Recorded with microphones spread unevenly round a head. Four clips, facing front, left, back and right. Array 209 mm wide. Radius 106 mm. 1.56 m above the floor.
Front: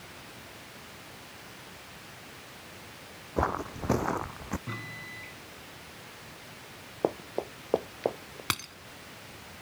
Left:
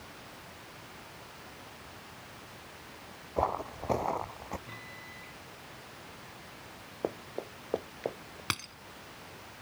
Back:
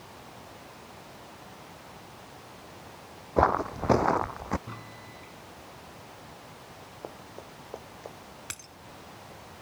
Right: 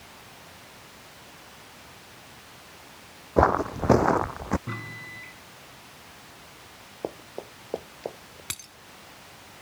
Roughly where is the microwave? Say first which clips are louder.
Right 9 dB, front 2 dB; ahead right.